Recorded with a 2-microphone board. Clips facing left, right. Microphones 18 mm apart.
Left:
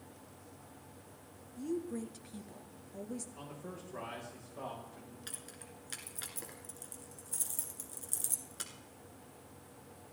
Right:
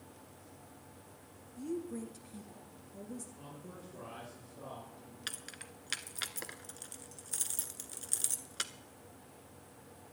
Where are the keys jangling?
35° right (ahead or behind), 0.8 m.